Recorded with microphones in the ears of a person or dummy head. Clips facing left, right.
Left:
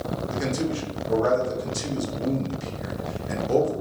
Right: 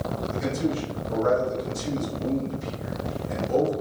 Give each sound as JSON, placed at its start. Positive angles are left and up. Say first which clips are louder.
{"t": 0.3, "sound": "a man speaking", "louder": "even", "side_deg": 75, "distance_m": 1.0}